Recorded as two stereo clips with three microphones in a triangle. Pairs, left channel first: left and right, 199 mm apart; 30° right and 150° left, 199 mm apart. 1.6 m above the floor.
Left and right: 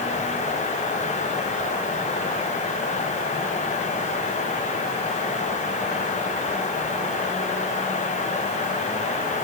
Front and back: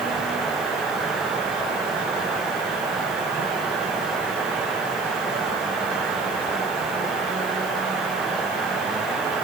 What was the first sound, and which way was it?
Only background noise.